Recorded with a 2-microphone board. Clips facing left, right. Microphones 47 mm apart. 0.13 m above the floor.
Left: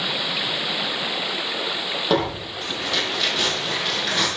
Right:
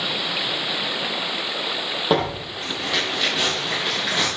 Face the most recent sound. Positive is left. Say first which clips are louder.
# right 1 dB
turn(degrees=-10)  # may be behind; listen again after turning